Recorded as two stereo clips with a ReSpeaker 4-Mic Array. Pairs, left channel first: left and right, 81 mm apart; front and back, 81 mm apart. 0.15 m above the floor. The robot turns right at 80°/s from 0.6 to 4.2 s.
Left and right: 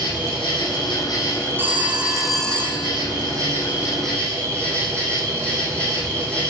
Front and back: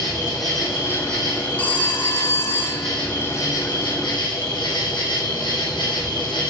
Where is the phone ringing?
55° right, 1.1 m; by 3.0 s 55° left, 1.1 m.